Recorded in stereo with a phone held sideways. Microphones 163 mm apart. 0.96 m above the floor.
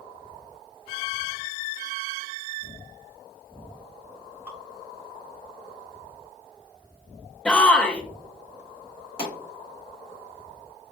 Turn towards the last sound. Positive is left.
turn(degrees=35)  # may be behind; listen again after turning